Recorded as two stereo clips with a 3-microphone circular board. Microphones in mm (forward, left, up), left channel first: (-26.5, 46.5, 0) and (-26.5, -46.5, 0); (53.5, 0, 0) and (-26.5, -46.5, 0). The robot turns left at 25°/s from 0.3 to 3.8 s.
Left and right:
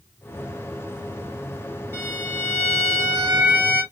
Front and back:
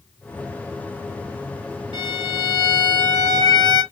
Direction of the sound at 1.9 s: 155° right.